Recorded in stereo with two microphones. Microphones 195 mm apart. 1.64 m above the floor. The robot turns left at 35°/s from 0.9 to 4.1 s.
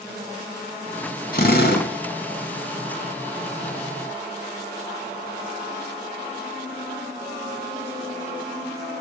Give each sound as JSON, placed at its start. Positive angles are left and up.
{"t": 1.3, "sound": "a drill", "side_deg": 50, "distance_m": 2.5}